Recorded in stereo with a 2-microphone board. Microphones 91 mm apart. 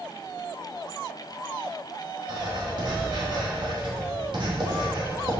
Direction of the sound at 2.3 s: 55° right (ahead or behind).